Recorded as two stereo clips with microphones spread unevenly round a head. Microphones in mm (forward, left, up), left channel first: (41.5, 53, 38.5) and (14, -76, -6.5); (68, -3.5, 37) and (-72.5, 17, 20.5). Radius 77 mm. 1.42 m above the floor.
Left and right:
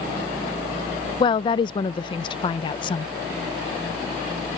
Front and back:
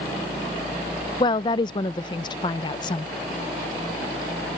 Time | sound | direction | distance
1.2 | a woman speaking | 45° left | ?